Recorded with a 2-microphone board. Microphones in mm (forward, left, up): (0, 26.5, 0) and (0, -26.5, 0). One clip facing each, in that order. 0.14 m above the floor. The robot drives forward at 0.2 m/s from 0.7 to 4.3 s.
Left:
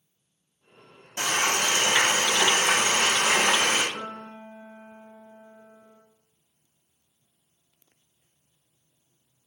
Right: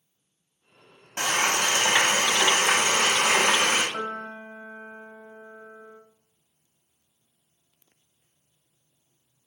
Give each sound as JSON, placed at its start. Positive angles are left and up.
{"t": 1.2, "sound": "frying", "side_deg": -40, "distance_m": 2.5}
{"t": 3.9, "sound": "a piano", "side_deg": -35, "distance_m": 0.7}